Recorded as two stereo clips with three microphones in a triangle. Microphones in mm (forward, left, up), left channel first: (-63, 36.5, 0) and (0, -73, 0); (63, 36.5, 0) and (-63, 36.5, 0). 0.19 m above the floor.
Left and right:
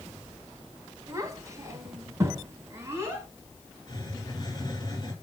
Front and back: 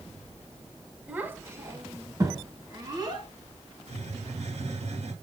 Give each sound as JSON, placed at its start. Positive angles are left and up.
{"t": 1.1, "sound": "a child speaking", "azimuth_deg": -110, "distance_m": 1.3}
{"t": 3.9, "sound": "a hiss", "azimuth_deg": 170, "distance_m": 2.5}